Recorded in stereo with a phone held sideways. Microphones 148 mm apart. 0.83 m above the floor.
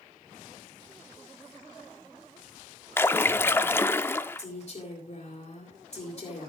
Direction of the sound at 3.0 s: 15° left (ahead or behind).